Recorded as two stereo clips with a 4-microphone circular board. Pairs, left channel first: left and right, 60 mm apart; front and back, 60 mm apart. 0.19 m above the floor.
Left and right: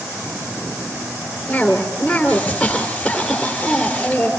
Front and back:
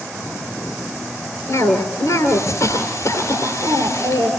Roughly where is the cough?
Ahead.